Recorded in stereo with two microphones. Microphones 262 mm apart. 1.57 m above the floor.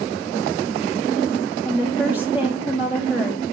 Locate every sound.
1.6 s a woman speaking: 5° right (ahead or behind), 2.5 m